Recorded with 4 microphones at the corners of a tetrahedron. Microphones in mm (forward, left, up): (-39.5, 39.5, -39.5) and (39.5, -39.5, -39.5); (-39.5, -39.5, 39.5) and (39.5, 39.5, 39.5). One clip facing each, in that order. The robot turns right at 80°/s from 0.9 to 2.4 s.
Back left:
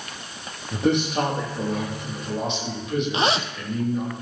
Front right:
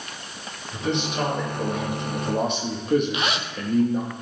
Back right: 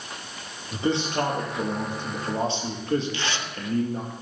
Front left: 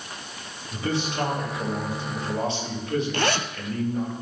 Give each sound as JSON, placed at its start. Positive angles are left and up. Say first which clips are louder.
{"t": 0.7, "sound": "a man speaking", "louder": "back left 5 dB, back right 3 dB", "azimuth_deg": 160, "distance_m": 4.5}
{"t": 3.1, "sound": "a zipper", "louder": "back left 4 dB, front left 6 dB", "azimuth_deg": 80, "distance_m": 0.7}